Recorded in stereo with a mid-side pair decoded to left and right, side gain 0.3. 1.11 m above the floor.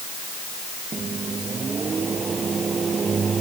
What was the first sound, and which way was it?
A microwave, 55° right.